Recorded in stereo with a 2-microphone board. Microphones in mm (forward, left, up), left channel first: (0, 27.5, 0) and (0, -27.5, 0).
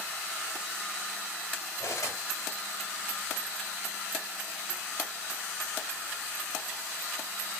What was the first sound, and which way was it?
Cutlery clinking, 60° left (ahead or behind).